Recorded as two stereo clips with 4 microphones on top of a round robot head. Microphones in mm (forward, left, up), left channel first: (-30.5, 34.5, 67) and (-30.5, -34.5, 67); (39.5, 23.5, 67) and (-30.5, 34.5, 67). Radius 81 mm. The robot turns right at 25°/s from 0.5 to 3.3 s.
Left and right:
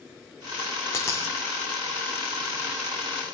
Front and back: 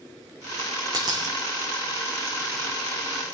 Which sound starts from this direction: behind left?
A dropped coin, at 0.9 s.